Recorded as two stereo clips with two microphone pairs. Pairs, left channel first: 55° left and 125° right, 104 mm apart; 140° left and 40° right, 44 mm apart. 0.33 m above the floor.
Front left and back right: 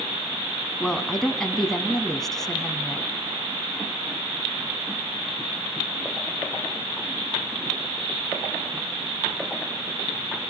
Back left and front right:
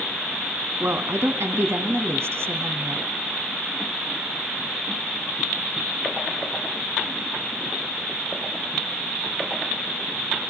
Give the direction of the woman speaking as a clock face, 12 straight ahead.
1 o'clock.